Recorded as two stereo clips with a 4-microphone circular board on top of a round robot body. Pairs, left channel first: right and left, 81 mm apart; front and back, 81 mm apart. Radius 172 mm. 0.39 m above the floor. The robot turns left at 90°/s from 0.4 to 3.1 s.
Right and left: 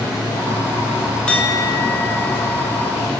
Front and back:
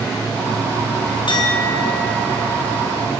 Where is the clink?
10° right, 3.5 m; by 3.1 s 175° right, 3.5 m.